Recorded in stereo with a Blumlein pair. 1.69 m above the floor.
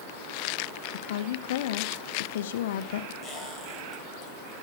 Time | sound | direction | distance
0.9 | a woman speaking | 55° left | 0.6 m
3.2 | a squeak | 10° left | 4.5 m